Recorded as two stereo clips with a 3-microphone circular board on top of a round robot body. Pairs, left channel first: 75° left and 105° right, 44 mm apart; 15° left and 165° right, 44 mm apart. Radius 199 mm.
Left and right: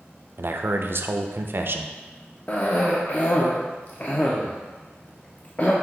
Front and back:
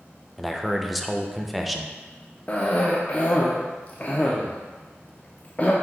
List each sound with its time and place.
0.4 s a man speaking: 75° right, 0.5 m
2.5 s a cough: 55° left, 0.8 m